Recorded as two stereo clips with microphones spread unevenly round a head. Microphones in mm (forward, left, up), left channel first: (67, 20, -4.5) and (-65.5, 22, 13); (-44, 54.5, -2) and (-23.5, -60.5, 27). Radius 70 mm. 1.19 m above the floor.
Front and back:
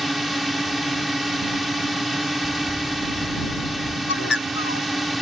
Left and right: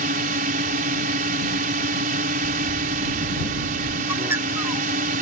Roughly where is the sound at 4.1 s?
Ahead.